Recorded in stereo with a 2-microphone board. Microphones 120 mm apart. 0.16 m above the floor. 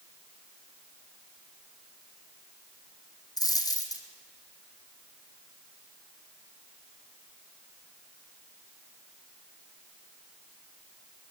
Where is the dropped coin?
30° left (ahead or behind), 2.5 m.